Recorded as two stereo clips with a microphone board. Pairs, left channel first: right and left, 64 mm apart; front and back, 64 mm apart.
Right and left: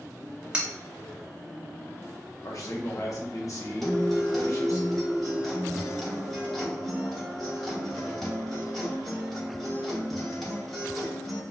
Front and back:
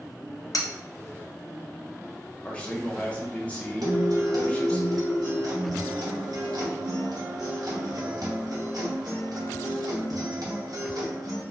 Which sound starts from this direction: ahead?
Cutlery clinking, at 0.5 s.